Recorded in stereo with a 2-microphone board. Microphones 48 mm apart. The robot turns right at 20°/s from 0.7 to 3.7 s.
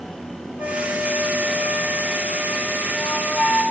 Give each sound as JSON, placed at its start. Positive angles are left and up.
{"t": 0.6, "sound": "a flute", "azimuth_deg": -70, "distance_m": 2.5}